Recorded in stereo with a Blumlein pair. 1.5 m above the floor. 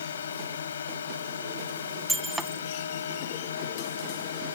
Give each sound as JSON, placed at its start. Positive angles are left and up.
{"t": 0.0, "sound": "a drone", "azimuth_deg": 65}
{"t": 2.1, "sound": "breaking glass", "azimuth_deg": -5}